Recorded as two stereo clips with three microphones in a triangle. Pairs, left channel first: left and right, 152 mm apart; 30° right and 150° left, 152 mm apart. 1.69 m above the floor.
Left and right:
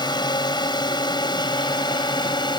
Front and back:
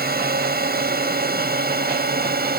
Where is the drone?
150° left.